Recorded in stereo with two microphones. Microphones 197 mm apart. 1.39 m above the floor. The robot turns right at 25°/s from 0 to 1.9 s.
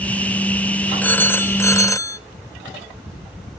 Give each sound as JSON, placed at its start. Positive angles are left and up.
{"t": 1.0, "sound": "a phone ringing", "side_deg": 10, "distance_m": 0.5}